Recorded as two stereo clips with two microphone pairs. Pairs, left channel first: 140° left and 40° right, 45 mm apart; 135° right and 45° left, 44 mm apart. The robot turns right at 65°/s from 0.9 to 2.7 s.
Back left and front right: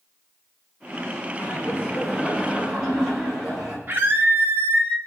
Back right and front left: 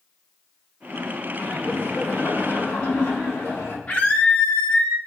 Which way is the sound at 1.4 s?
155° left.